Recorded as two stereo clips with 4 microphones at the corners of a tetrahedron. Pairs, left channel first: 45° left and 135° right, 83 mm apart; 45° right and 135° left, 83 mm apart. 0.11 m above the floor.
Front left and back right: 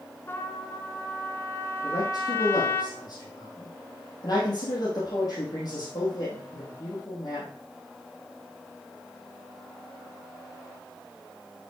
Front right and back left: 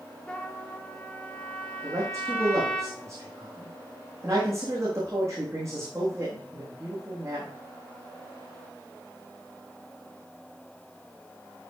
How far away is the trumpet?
About 1.5 m.